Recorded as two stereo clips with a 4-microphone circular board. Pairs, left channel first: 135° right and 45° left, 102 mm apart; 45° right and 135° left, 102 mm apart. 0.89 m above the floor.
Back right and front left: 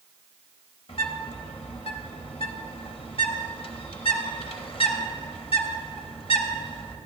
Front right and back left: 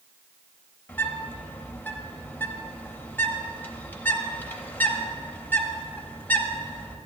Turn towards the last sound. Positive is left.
turn(degrees=-115)